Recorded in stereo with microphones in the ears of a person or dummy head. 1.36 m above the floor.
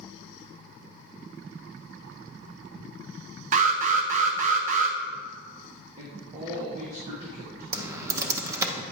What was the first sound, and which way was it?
An alarm, 40° right (ahead or behind).